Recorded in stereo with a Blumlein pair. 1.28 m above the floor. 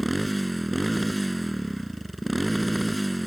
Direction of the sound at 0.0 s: Straight ahead.